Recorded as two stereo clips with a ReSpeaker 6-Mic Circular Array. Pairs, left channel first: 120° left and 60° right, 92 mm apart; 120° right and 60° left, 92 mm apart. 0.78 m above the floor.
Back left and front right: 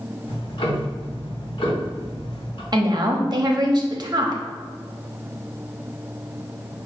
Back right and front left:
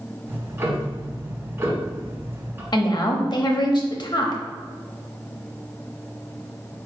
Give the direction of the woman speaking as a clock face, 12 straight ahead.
3 o'clock.